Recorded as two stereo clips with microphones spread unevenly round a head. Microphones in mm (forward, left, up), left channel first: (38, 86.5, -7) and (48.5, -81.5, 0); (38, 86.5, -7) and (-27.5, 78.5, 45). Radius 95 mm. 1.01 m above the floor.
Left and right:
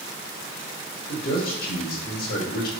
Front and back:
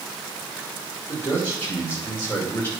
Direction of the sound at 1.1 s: 65° left.